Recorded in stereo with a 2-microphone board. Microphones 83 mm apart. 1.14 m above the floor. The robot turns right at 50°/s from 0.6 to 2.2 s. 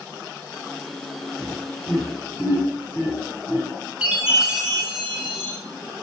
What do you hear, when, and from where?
1.4 s laughter: 25° left (ahead or behind), 1.3 m; by 3.7 s 60° left (ahead or behind), 1.3 m
4.0 s a chime: 10° right (ahead or behind), 1.0 m